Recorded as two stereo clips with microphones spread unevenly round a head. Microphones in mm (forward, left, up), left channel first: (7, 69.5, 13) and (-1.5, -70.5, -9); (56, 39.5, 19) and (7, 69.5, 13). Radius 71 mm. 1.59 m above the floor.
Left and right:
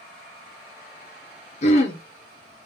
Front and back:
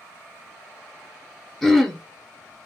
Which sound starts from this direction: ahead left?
Throat clearing, at 1.6 s.